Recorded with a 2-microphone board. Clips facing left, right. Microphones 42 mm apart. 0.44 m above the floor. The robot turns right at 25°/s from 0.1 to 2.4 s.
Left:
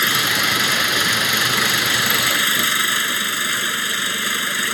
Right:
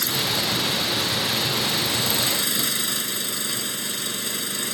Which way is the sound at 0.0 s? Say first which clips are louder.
Left 7 dB; 65° left.